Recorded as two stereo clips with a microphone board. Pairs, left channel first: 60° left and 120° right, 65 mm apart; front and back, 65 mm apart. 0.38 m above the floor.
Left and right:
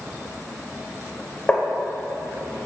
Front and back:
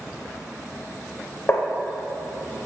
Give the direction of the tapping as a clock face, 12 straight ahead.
12 o'clock.